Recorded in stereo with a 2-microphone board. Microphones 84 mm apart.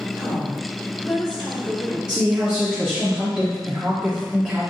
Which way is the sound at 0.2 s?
55° left (ahead or behind).